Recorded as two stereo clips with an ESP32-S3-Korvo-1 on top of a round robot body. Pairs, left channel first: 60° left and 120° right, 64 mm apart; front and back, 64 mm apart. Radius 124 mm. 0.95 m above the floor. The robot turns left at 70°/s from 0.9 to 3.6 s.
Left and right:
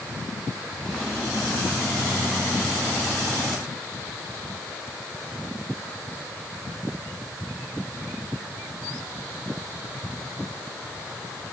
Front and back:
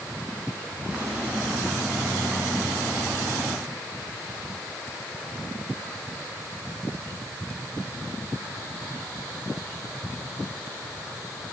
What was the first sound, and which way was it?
Only background noise.